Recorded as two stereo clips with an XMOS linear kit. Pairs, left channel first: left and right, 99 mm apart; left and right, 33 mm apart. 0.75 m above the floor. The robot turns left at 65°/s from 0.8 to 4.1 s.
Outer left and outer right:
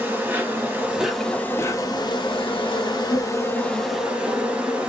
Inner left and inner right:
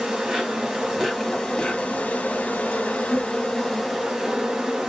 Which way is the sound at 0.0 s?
155° right.